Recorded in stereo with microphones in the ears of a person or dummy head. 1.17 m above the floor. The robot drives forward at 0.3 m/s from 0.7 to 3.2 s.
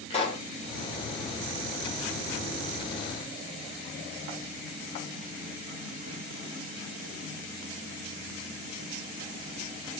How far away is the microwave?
I don't hear a microwave.